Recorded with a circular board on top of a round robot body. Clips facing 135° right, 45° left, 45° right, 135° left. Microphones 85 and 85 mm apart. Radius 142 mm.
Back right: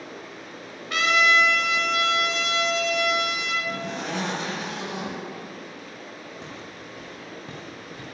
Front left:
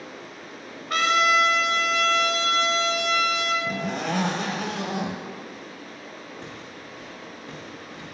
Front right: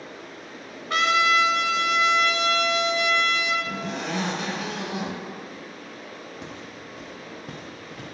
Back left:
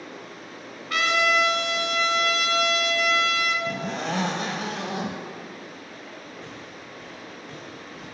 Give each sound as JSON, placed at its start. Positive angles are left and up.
{"t": 0.9, "sound": "a trumpet", "azimuth_deg": 0, "distance_m": 1.5}
{"t": 3.7, "sound": "a zipper", "azimuth_deg": 90, "distance_m": 0.6}
{"t": 6.4, "sound": "footsteps", "azimuth_deg": -65, "distance_m": 2.0}